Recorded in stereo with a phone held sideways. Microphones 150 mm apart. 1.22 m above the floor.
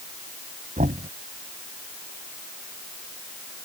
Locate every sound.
0.8 s knocking: 60° right (ahead or behind)